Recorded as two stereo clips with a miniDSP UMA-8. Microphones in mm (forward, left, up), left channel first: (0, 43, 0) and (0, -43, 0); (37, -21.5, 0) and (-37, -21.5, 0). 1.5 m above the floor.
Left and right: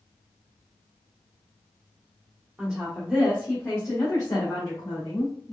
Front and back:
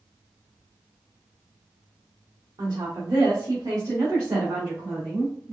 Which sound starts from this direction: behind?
A woman speaking, at 2.6 s.